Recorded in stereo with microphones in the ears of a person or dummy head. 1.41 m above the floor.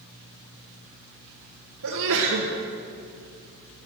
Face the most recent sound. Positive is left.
turn(degrees=-75)  # may be behind; listen again after turning